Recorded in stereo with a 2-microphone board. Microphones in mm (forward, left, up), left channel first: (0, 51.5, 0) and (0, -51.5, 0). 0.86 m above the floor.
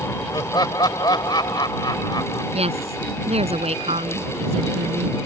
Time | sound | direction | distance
0.3 | laughter | 45° left (ahead or behind) | ?
2.5 | a woman speaking | 85° right | ?